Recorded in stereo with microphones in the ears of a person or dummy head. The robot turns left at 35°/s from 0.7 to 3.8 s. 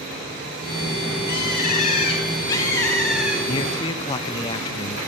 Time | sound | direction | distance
1.3 | a bird | 65° left | 3.5 m
3.5 | a man speaking | 30° left (ahead or behind) | 0.6 m